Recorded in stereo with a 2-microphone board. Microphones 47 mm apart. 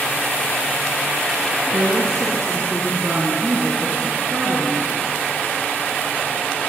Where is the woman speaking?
70° right (ahead or behind), 3 m; by 4.9 s 55° right (ahead or behind), 4.5 m.